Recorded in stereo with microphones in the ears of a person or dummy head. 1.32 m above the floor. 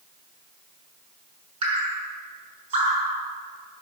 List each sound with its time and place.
1.6 s dripping: 35° right (ahead or behind), 6 m